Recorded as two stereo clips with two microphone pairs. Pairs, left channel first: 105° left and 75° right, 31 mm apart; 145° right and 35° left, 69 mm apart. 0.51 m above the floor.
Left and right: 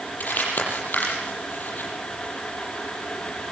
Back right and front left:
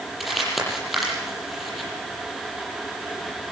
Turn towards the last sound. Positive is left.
turn(degrees=125)